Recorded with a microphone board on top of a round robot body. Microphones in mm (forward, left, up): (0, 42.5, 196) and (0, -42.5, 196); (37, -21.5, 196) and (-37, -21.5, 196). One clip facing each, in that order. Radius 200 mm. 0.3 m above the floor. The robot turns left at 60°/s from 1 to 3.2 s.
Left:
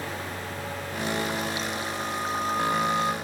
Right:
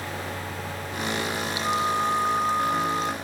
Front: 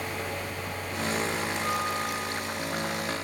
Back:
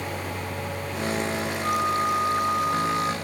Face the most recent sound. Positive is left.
turn(degrees=160)